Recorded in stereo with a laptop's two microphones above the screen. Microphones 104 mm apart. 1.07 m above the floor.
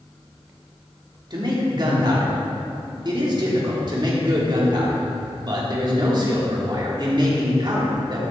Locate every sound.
1.3 s a man speaking: 45° right (ahead or behind), 3 m